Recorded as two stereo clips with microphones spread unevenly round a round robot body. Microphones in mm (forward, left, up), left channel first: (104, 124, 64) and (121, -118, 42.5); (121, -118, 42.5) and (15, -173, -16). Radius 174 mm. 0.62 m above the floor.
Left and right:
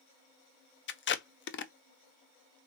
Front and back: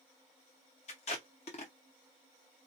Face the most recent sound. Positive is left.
turn(degrees=80)